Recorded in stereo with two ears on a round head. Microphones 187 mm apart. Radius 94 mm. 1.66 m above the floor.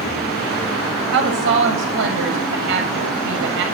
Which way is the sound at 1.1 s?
65° right (ahead or behind).